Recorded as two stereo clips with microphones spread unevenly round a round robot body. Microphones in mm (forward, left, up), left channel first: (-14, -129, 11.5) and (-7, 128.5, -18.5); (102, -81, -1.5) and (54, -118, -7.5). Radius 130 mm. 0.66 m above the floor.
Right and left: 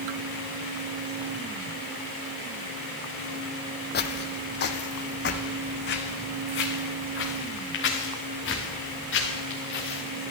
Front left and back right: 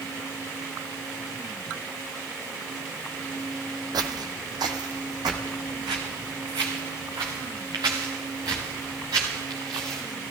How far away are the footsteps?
About 1.5 m.